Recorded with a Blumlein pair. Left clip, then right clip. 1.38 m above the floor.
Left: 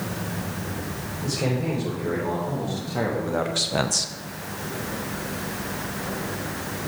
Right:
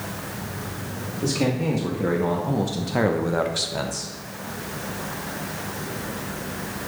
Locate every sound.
1.2 s a man speaking: 50° right, 2.5 m; by 4.1 s 40° left, 0.8 m